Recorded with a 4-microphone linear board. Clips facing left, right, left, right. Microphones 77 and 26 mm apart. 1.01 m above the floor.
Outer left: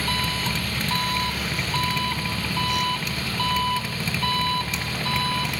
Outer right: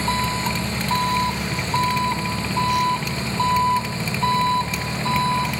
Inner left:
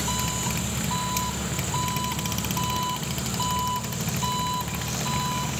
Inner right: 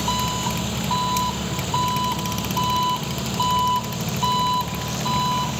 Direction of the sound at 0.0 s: 25° right (ahead or behind).